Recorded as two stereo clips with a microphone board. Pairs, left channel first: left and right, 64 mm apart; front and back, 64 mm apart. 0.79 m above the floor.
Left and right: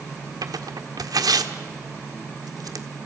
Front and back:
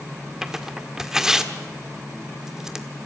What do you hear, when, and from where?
0.4 s tearing paper: 100° right, 1.5 m